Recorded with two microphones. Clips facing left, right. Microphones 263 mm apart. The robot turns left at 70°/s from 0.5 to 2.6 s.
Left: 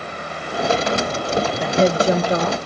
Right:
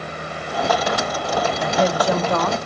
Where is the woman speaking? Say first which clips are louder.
Left 4 dB; 80° left, 1.5 m; by 2.6 s 10° left, 1.5 m.